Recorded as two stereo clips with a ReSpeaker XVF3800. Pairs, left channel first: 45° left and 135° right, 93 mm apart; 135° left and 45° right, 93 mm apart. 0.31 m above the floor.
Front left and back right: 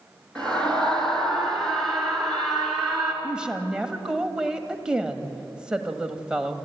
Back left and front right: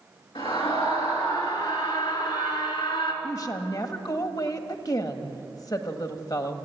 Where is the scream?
125° left, 5 m; by 3.1 s 140° left, 4 m.